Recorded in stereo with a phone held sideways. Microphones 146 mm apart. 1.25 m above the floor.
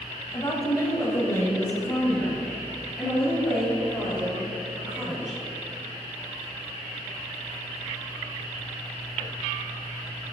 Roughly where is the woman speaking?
Left.